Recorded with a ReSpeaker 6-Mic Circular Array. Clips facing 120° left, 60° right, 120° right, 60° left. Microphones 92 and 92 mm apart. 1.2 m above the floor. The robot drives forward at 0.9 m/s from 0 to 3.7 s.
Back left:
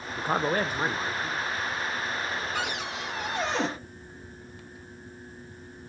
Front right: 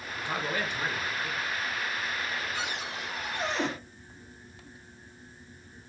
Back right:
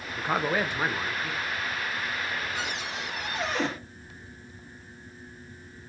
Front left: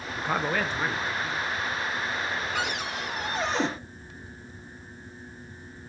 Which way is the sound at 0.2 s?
145° left.